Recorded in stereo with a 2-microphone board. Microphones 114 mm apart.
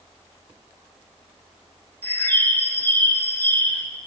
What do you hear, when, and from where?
2.0 s a bird: 20° left (ahead or behind), 1.2 m